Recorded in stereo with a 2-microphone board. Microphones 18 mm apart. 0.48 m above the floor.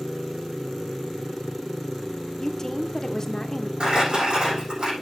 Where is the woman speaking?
30° left (ahead or behind), 1.0 m.